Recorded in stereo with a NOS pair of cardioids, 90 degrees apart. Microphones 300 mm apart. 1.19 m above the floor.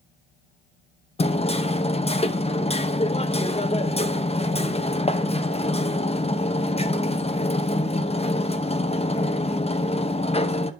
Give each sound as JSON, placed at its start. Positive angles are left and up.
{"t": 1.2, "sound": "hammering", "azimuth_deg": 20, "distance_m": 0.9}